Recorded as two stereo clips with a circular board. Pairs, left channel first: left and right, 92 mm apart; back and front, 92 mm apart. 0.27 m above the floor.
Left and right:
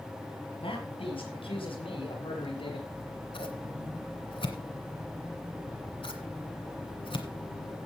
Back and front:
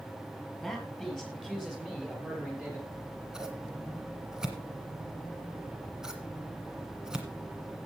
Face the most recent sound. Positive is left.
turn(degrees=85)